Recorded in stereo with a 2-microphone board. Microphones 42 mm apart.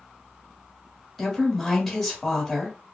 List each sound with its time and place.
1.2 s a woman speaking: centre (ahead or behind), 1.2 m